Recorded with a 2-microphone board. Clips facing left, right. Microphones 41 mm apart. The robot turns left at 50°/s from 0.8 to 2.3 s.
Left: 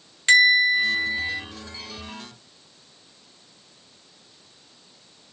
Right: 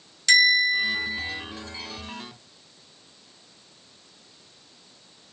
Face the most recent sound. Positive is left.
turn(degrees=55)